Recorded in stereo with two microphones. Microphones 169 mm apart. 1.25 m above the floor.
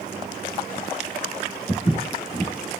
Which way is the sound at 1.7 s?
35° left (ahead or behind).